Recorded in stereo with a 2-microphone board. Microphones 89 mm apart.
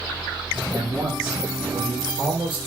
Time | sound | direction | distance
0.7 | a man speaking | 25° right (ahead or behind) | 4 m